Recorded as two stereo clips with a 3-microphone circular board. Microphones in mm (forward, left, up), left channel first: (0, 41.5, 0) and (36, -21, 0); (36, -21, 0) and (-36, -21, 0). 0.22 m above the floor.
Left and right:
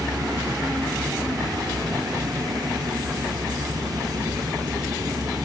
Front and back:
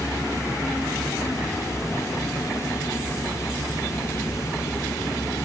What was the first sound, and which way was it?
Only background noise.